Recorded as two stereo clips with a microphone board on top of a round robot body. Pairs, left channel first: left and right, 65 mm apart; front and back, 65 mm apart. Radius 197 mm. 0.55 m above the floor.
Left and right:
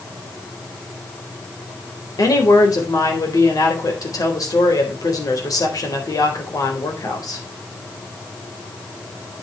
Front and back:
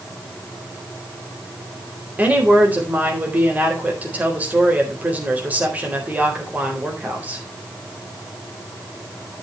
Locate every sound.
2.2 s a woman speaking: 115° left, 4 m